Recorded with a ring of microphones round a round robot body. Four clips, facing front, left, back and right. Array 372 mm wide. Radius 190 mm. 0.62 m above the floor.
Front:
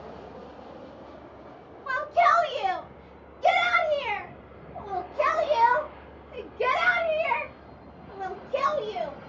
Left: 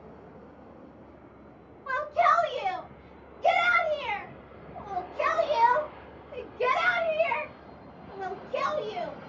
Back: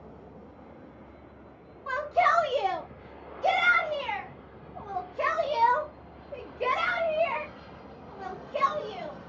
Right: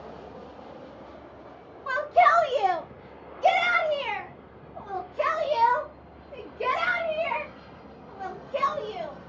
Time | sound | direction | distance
1.9 | a shout | 90° right | 2.0 m